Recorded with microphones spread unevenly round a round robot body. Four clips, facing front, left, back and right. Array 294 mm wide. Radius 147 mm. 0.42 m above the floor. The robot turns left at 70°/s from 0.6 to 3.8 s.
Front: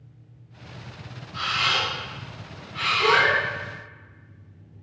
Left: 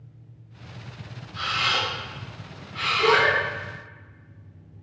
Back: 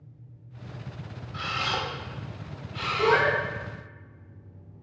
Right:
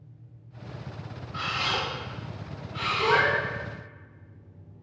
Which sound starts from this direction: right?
A camera shutter, at 1.3 s.